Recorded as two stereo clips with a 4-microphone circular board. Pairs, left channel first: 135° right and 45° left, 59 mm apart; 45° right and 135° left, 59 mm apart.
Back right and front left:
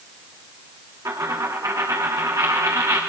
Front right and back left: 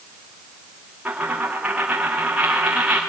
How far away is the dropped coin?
About 3.5 m.